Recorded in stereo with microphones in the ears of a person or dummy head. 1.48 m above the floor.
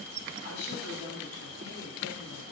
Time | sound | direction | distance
0.4 | a woman speaking | 85° left | 1.8 m